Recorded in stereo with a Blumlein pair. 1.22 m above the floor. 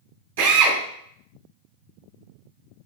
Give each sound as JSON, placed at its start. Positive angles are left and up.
{"t": 0.4, "sound": "a drill", "azimuth_deg": -60, "distance_m": 1.9}